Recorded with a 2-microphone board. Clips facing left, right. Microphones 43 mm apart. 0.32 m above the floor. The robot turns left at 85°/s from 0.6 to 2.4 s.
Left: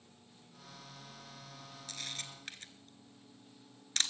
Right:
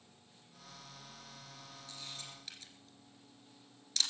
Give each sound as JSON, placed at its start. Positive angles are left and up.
{"t": 1.9, "sound": "a camera shutter", "side_deg": 85, "distance_m": 1.2}